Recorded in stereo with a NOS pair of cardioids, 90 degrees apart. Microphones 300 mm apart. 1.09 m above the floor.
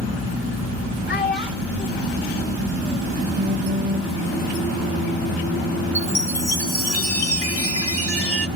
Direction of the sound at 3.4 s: 25° right.